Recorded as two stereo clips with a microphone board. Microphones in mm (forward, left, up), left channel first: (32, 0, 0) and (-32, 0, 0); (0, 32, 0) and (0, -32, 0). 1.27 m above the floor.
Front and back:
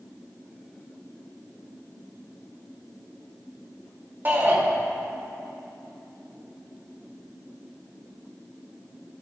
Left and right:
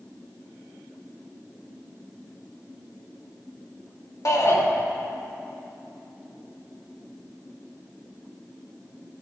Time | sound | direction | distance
4.2 | a shout | 125° left | 1.6 m